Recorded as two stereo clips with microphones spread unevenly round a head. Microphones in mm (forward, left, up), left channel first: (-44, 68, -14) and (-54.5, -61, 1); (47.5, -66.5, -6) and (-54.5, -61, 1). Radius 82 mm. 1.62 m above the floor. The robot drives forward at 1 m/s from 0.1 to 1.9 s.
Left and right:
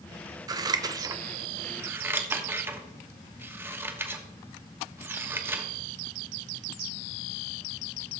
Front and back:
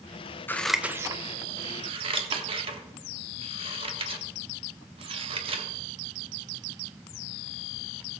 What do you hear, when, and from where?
0.5 s scissors: 65° right, 0.7 m; by 5.7 s 165° right, 1.4 m